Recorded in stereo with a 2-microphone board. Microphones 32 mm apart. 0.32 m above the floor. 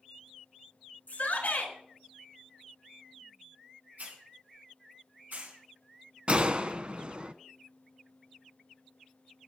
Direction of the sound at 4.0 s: 70° right (ahead or behind).